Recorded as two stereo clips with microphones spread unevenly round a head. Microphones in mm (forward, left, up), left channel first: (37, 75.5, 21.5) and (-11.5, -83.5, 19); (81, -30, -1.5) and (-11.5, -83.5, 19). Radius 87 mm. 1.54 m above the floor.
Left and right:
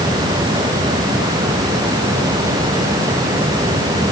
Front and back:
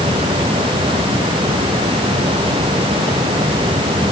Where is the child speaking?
I don't hear a child speaking.